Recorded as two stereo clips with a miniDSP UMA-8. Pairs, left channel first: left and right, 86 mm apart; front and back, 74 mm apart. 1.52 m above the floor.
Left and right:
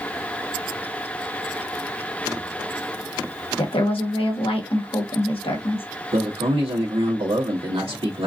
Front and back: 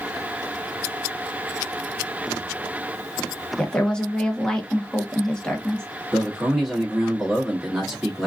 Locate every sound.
3.6 s a woman speaking: 80° left, 1.3 m
6.1 s a man speaking: 95° right, 1.3 m